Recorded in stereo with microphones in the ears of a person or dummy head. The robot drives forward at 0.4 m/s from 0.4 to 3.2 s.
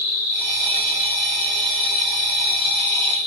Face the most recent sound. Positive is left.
turn(degrees=65)  # may be behind; listen again after turning